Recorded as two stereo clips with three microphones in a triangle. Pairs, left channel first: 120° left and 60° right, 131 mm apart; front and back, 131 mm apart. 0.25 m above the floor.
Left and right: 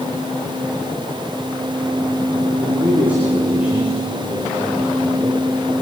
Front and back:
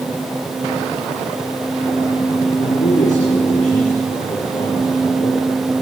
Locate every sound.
2.6 s a man speaking: 20° left, 7.5 m